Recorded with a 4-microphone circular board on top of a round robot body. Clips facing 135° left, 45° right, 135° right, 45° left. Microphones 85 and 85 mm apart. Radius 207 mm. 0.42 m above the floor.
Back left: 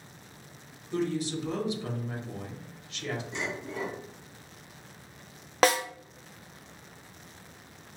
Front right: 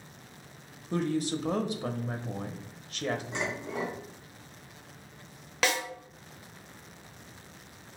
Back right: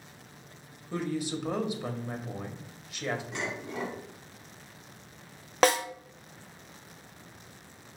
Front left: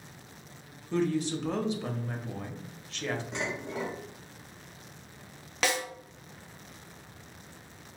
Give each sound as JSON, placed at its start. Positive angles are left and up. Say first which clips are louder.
{"t": 0.9, "sound": "a woman speaking", "louder": "front right 1 dB, front left 4 dB", "azimuth_deg": -60, "distance_m": 1.1}
{"t": 3.3, "sound": "dishes clattering", "louder": "front right 1 dB, front left 1 dB", "azimuth_deg": -15, "distance_m": 2.0}
{"t": 5.6, "sound": "a snare drum", "louder": "back left 6 dB, back right 7 dB", "azimuth_deg": 180, "distance_m": 0.6}